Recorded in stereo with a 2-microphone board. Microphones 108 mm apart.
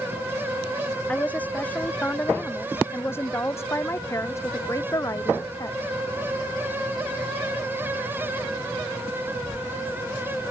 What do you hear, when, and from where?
1.1 s a woman speaking: 15° left (ahead or behind); by 5.8 s 35° left (ahead or behind)